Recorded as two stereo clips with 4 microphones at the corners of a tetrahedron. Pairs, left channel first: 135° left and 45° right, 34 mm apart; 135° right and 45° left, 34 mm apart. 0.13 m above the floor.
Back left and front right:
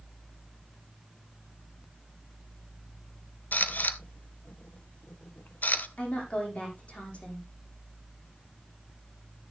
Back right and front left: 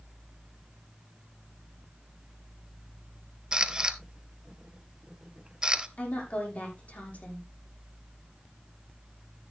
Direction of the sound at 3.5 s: 110° left.